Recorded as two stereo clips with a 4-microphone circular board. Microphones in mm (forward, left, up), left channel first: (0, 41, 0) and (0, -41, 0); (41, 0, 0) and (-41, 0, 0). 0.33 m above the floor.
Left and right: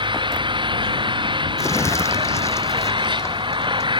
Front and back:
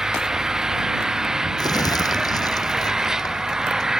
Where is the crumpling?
40° left.